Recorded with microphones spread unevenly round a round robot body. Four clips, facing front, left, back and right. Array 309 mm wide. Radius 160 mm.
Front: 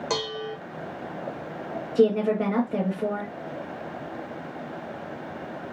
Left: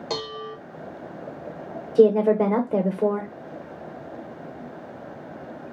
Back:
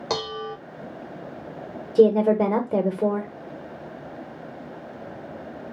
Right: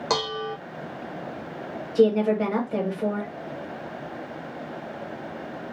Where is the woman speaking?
145° left, 1.0 m.